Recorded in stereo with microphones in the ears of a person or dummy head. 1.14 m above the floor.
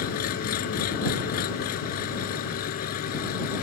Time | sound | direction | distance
0.0 | an engine running | 60° left (ahead or behind) | ?